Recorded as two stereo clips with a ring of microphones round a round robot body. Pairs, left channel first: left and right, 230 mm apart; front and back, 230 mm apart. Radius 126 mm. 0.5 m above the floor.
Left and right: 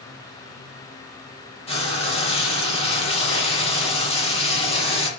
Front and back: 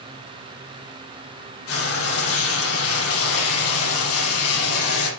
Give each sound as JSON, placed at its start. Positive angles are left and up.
{"t": 1.7, "sound": "frying", "azimuth_deg": 25, "distance_m": 6.5}